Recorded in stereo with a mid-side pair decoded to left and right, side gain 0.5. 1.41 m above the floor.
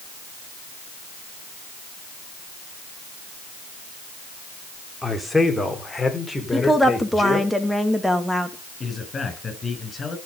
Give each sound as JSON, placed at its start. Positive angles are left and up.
{"t": 5.0, "sound": "a man speaking", "azimuth_deg": 0, "distance_m": 3.5}
{"t": 6.5, "sound": "a woman speaking", "azimuth_deg": 0, "distance_m": 2.5}
{"t": 8.8, "sound": "a man speaking", "azimuth_deg": 35, "distance_m": 7.0}